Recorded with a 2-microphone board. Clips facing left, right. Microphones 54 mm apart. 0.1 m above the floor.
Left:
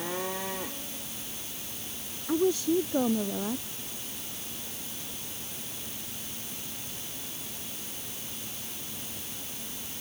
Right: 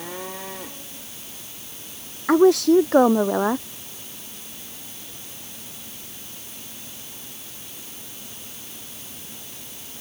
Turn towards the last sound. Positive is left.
turn(degrees=-65)  # may be behind; listen again after turning